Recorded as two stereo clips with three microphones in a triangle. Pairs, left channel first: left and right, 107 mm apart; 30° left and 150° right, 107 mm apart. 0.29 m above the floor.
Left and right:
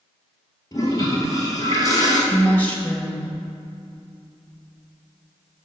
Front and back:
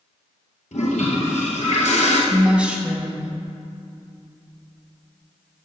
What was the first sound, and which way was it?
A toilet flushing, 35° left.